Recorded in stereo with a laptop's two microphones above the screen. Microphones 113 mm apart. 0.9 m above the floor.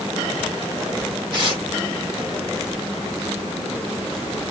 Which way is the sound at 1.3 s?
40° right (ahead or behind).